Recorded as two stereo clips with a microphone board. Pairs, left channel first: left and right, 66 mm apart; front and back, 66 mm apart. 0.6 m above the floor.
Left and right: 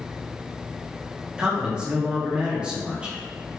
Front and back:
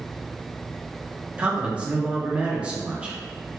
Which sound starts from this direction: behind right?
A man speaking, at 1.4 s.